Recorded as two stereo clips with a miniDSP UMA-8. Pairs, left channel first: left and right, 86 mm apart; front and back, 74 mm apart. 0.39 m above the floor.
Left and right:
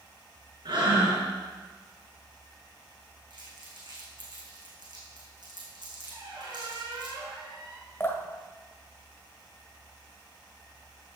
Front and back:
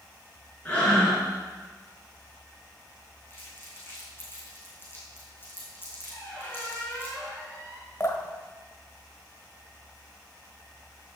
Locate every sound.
0.7 s breathing: 75° right, 5 m
3.3 s crumpling: 60° right, 4.5 m
6.1 s a squeak: 70° right, 4 m
8.0 s dripping: 35° left, 1.4 m